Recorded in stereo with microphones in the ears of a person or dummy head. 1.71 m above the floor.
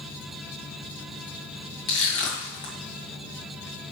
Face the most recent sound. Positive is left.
turn(degrees=25)  # may be behind; listen again after turning